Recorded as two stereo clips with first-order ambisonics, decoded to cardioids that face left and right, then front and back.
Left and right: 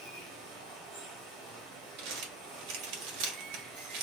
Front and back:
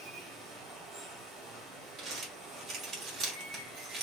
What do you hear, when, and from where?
0.0 s running water: 110° right, 1.8 m
2.0 s crumpling: 110° right, 1.3 m